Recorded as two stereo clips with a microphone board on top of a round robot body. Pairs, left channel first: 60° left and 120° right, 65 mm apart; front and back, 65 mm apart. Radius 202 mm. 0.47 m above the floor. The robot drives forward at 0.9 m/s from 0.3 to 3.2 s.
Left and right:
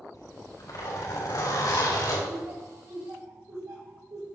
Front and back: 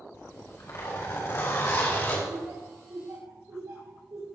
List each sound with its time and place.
0.1 s a zipper: 30° left, 4 m; by 2.2 s 50° left, 2.5 m
2.3 s laughter: 150° right, 3.5 m; by 4.2 s 155° right, 4 m